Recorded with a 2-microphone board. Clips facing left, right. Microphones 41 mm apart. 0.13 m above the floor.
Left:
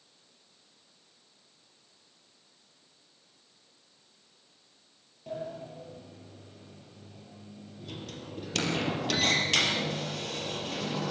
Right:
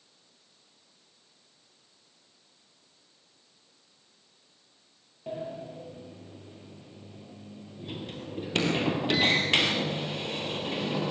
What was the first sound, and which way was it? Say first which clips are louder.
A sliding door: right 1 dB; 25° right (ahead or behind).